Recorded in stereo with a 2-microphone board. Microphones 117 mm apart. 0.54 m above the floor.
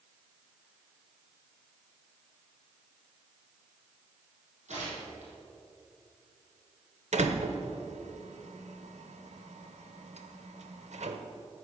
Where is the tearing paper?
80° right, 5.5 m.